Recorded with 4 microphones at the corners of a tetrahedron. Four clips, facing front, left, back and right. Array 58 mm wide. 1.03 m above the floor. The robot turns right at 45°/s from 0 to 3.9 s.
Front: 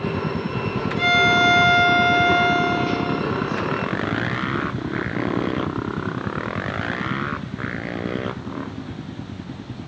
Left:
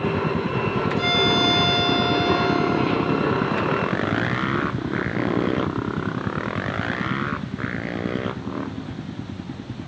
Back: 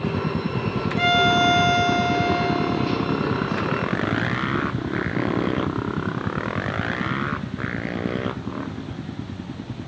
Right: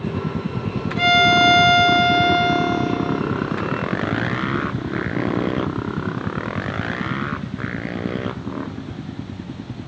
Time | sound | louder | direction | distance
1.0 | a violin | right 8 dB, front 2 dB | 120° right | 2.5 m